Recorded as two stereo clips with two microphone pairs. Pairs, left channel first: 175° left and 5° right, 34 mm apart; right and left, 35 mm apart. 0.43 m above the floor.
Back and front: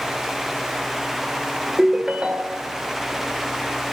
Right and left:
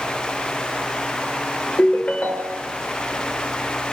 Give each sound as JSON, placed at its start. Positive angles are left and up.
{"t": 1.8, "sound": "a ringtone", "azimuth_deg": -60, "distance_m": 0.6}